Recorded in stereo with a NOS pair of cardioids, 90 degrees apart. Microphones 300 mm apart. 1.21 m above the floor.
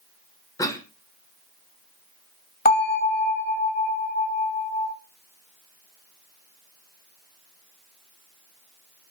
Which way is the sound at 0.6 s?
10° left.